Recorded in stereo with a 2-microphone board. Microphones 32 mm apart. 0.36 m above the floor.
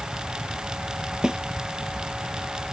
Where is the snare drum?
25° right (ahead or behind).